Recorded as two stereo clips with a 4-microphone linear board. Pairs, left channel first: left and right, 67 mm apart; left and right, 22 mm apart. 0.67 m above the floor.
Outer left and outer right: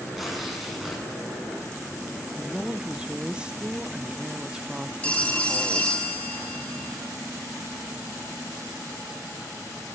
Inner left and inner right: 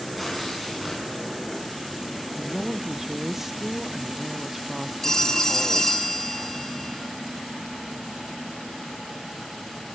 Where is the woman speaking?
15° right (ahead or behind), 0.7 m.